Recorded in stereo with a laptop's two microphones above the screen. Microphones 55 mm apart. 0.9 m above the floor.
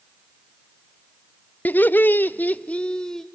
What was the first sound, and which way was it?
Laughter, 35° left (ahead or behind).